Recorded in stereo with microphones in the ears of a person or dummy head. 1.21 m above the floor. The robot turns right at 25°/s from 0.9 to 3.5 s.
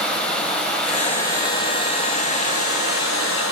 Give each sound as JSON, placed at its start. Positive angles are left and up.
{"t": 0.0, "sound": "running water", "azimuth_deg": 10, "distance_m": 6.5}